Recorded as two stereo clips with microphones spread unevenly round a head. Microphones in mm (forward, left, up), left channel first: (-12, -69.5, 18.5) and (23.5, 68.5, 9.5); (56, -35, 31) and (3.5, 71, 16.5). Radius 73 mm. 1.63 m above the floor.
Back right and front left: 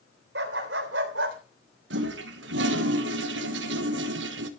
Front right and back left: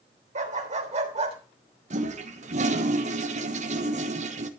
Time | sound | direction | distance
0.3 | a dog barking | 90° left | 3 m
1.9 | a toilet flushing | 90° left | 1.4 m